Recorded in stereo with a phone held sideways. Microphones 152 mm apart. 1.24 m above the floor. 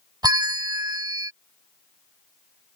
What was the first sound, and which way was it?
A bell, 25° right (ahead or behind).